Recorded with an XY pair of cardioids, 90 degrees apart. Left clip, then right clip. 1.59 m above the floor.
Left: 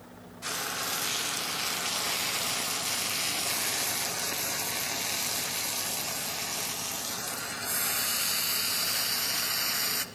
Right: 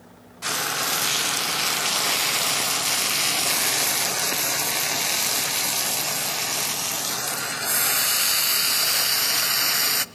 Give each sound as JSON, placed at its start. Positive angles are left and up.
{"t": 0.4, "sound": "frying", "azimuth_deg": -60, "distance_m": 0.8}